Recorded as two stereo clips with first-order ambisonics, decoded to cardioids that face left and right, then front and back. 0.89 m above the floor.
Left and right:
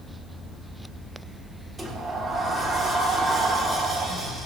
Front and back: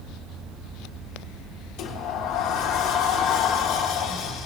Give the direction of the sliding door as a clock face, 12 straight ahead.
12 o'clock.